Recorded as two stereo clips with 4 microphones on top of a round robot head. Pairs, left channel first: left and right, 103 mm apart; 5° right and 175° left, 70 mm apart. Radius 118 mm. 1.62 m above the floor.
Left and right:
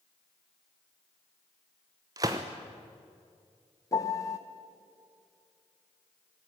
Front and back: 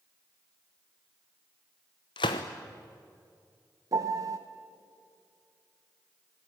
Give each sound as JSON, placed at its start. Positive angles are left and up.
{"t": 2.2, "sound": "a gunshot", "azimuth_deg": -25, "distance_m": 0.8}
{"t": 3.9, "sound": "a piano", "azimuth_deg": 145, "distance_m": 0.9}